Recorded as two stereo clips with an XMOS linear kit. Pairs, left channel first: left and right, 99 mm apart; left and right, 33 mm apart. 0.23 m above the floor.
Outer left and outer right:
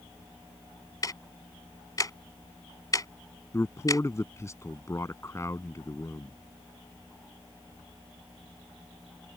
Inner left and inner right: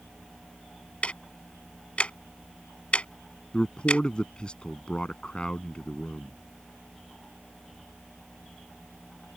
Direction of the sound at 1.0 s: 40° left (ahead or behind).